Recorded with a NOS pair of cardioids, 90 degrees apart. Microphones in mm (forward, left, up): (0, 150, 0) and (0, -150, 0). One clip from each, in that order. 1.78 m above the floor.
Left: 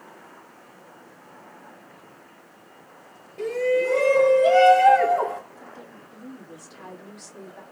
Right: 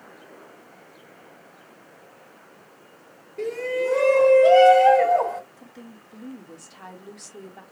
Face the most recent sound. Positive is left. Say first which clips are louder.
# left 3 dB
turn(degrees=-20)